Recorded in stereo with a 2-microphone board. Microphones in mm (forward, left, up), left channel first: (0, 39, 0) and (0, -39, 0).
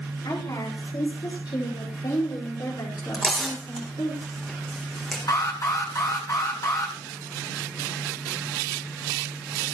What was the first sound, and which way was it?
A woman speaking, 70° left (ahead or behind).